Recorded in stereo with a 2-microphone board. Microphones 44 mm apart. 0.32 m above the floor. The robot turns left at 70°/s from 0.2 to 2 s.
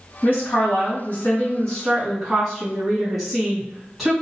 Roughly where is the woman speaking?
Behind left.